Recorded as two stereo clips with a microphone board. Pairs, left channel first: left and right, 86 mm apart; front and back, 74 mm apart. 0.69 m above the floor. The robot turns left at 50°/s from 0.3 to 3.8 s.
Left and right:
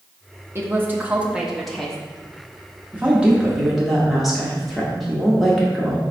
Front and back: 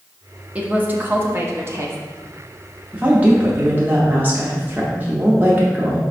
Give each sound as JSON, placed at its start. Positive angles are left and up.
{"t": 0.6, "sound": "a woman speaking", "azimuth_deg": -125, "distance_m": 0.7}
{"t": 2.9, "sound": "a woman speaking", "azimuth_deg": -135, "distance_m": 0.8}